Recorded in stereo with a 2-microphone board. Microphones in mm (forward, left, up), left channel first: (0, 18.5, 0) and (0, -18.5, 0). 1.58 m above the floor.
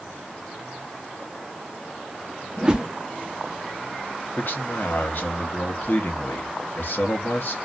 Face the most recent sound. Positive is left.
turn(degrees=65)  # may be behind; listen again after turning